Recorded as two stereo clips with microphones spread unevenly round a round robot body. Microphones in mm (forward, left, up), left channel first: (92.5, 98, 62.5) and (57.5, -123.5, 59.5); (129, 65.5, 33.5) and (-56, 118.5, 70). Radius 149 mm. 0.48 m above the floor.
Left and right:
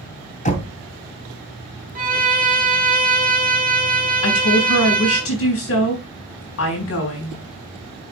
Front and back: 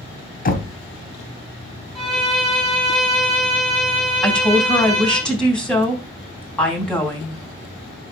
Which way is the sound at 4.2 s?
65° left.